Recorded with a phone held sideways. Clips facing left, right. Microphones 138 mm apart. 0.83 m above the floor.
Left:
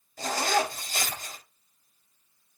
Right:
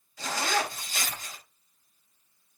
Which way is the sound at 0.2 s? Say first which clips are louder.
Left 3 dB; 45° left (ahead or behind).